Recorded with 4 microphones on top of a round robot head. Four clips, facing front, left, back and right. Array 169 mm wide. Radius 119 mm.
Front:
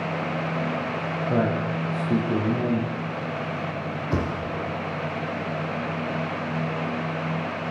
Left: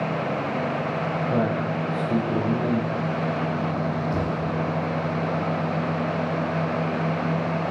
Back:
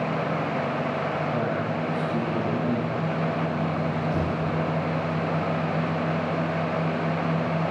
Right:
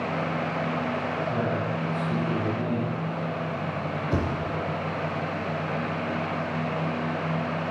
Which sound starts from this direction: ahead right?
A thud, at 4.1 s.